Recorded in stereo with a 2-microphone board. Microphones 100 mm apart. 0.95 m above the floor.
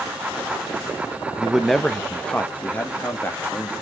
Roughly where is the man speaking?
Centre.